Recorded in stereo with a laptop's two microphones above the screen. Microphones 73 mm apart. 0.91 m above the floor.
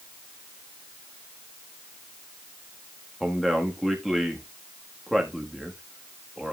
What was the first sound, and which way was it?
A man speaking, centre (ahead or behind).